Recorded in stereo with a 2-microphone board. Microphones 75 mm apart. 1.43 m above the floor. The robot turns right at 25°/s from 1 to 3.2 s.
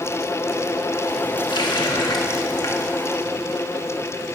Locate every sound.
1.5 s a running tap: 95° left, 1.9 m; by 2.9 s 130° left, 1.9 m